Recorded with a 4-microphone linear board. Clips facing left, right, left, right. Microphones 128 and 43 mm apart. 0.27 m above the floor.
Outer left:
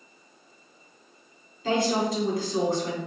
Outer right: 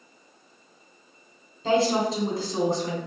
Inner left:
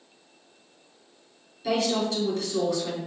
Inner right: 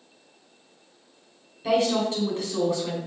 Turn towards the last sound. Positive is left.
turn(degrees=-30)  # may be behind; listen again after turning